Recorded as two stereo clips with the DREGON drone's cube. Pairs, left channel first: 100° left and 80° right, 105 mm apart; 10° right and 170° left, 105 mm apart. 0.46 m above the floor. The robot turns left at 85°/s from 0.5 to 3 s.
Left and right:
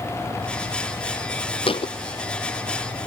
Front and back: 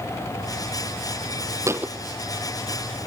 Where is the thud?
115° left, 0.8 m; by 1.9 s 90° left, 0.8 m.